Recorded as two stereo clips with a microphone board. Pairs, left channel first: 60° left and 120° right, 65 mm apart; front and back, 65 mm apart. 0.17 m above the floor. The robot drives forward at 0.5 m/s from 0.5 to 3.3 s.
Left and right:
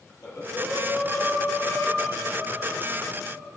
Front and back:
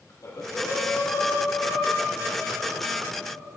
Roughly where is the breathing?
Ahead.